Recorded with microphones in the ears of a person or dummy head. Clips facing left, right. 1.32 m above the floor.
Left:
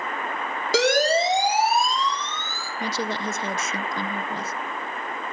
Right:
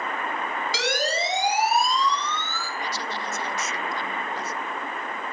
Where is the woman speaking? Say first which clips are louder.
Left 7 dB; 45° left (ahead or behind), 0.8 m.